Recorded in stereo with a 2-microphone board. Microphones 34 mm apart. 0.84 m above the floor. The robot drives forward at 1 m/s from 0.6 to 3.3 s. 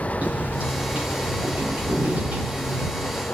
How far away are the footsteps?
About 9.5 m.